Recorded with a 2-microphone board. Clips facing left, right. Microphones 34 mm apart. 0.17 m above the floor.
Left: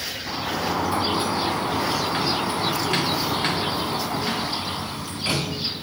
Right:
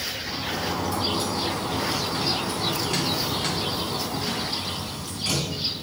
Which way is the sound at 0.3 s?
30° left (ahead or behind).